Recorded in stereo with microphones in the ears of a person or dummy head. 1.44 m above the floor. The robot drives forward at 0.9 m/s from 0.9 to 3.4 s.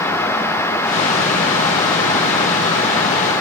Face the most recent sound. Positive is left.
No sound to turn to.